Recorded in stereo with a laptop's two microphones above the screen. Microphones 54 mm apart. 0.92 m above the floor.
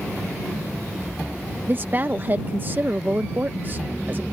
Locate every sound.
1.7 s a woman speaking: 35° right (ahead or behind)